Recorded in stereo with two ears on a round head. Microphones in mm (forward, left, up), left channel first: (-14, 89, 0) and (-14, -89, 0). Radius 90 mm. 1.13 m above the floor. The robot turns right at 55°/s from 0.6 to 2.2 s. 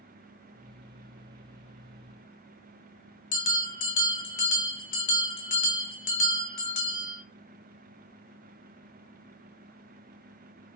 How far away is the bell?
About 1.0 m.